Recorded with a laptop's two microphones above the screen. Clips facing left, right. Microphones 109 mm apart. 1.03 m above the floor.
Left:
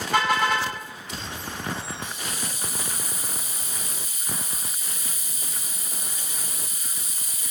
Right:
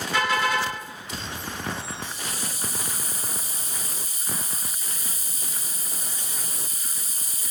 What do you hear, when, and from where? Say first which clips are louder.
0.1 s a car horn: left 2 dB; 60° left (ahead or behind), 5.5 m
2.0 s a hiss: even; 35° right (ahead or behind), 0.9 m